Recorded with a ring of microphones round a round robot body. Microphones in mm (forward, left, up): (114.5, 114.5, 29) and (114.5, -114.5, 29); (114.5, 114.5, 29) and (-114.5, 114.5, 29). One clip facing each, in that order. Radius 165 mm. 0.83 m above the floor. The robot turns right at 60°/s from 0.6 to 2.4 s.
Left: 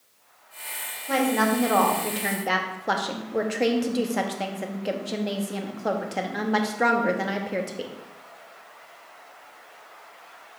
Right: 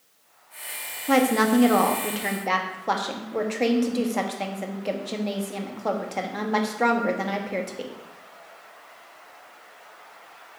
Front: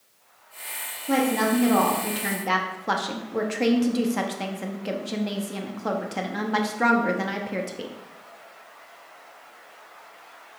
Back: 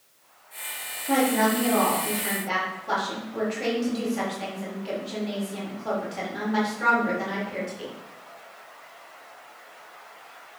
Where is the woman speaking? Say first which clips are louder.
Right 3 dB, even; 70° right, 1.3 m; by 7.9 s 10° left, 1.3 m.